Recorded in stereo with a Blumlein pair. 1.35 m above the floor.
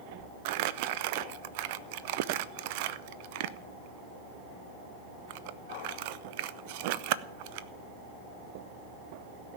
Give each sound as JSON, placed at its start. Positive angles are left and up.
{"t": 0.5, "sound": "crumpling", "azimuth_deg": -50, "distance_m": 0.5}